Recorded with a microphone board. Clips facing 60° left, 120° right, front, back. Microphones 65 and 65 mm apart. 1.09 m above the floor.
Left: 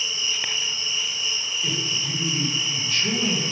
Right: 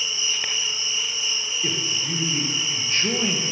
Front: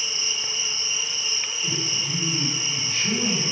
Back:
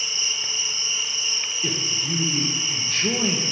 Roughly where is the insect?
Ahead right.